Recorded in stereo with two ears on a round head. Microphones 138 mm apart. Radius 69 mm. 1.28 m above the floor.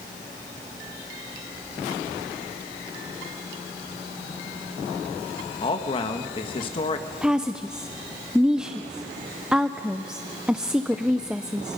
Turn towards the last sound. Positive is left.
turn(degrees=-5)  # may be behind; listen again after turning